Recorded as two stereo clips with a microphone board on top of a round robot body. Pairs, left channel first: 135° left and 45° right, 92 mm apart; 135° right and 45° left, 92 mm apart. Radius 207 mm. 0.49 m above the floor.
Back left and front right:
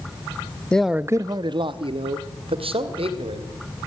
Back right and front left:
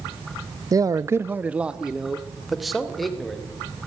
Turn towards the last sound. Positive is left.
turn(degrees=-50)